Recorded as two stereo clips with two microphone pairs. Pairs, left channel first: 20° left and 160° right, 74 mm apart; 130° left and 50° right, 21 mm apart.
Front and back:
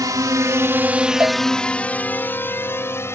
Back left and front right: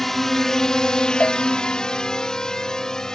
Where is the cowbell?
140° left.